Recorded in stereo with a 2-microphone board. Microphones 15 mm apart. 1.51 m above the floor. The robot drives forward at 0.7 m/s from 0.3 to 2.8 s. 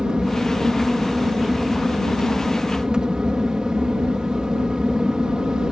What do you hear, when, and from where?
0.0 s an aircraft: 65° right (ahead or behind)